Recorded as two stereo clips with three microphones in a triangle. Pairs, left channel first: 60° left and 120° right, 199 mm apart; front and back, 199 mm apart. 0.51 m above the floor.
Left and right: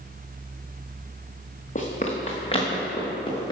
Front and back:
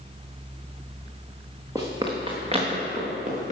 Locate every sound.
1.8 s running footsteps: 105° left, 1.9 m; by 3.5 s 130° left, 4 m